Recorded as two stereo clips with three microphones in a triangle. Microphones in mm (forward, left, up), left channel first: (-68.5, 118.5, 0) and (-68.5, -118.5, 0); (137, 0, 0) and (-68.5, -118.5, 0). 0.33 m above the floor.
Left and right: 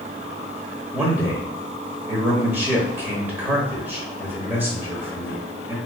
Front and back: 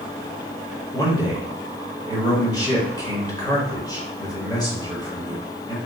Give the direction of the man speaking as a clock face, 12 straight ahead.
1 o'clock.